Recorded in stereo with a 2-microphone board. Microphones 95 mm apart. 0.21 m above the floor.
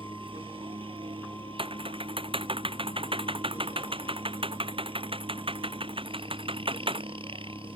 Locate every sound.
0.0 s a helicopter: 70° right (ahead or behind)
1.6 s typing on a keyboard: 70° right (ahead or behind)